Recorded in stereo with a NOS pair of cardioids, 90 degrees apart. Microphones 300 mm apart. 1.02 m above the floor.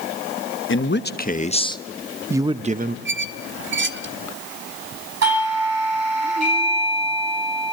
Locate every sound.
0.7 s a man speaking: 40° left, 1.2 m; by 3.0 s 35° right, 0.9 m
3.0 s a squeak: 40° right, 1.0 m
5.2 s a doorbell: 55° right, 9 m